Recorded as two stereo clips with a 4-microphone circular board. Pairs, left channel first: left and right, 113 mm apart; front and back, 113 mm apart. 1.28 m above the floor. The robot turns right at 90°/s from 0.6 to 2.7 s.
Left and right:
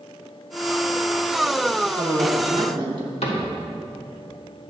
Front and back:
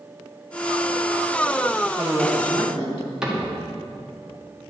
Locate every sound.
1.8 s a woman speaking: 120° right, 2.5 m; by 3.1 s 45° right, 2.5 m
3.2 s a cupboard door: 95° left, 1.8 m